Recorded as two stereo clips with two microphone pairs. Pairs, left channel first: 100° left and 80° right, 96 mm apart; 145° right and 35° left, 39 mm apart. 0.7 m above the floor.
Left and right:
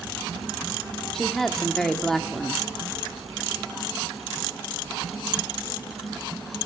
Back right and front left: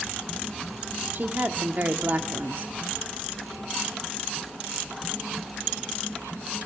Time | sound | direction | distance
1.1 | a woman speaking | 10° left | 1.2 m